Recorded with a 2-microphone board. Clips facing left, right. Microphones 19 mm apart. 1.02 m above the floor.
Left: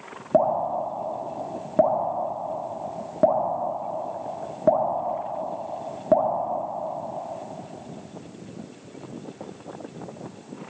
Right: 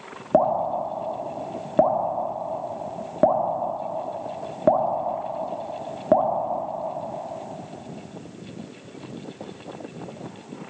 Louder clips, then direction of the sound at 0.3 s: Right 1 dB; 15° right (ahead or behind).